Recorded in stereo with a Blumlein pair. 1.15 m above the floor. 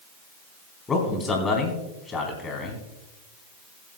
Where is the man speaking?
15° left, 3.5 m.